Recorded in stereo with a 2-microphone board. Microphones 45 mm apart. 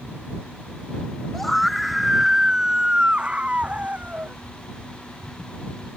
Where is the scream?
5° left (ahead or behind); by 4.3 s 35° right (ahead or behind).